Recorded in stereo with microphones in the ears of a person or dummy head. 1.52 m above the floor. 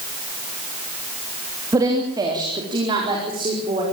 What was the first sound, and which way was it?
A woman speaking, 20° right (ahead or behind).